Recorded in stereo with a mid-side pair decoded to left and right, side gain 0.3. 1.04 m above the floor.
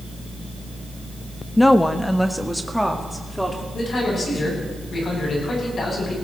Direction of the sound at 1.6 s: 20° left.